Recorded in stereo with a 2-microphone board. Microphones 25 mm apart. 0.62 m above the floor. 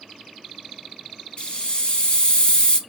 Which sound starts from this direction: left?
A hiss, at 1.4 s.